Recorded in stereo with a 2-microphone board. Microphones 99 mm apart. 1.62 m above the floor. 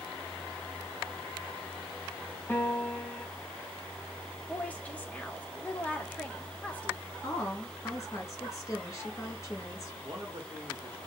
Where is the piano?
20° left (ahead or behind), 2 m.